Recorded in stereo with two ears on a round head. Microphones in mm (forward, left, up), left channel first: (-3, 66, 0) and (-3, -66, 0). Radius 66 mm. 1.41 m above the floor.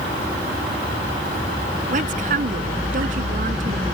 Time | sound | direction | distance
1.9 | a woman speaking | 55° right (ahead or behind) | ?